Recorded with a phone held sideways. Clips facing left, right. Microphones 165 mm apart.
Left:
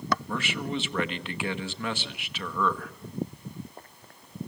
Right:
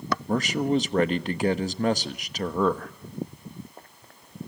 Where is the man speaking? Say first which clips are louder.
Right 8 dB; 40° right (ahead or behind), 1.2 m.